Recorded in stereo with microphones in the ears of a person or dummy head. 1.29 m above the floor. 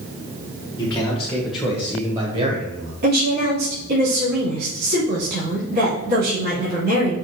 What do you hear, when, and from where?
0.8 s a man speaking: 15° left (ahead or behind), 1.7 m; by 2.9 s 45° right (ahead or behind), 1.3 m
3.0 s a woman speaking: 50° right (ahead or behind), 3.5 m